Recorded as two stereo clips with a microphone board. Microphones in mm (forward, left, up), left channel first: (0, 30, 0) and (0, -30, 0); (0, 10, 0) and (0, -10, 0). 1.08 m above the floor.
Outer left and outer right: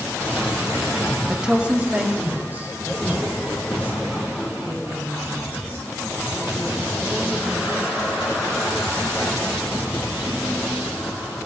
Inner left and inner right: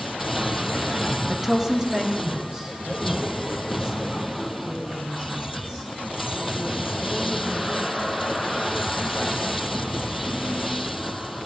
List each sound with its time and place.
1.3 s a woman speaking: 10° right (ahead or behind), 0.8 m; by 5.9 s 40° right (ahead or behind), 7.5 m